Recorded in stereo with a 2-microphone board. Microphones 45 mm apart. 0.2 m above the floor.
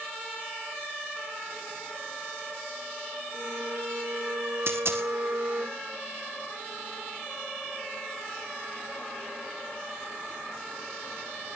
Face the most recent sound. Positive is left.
turn(degrees=-70)  # may be behind; listen again after turning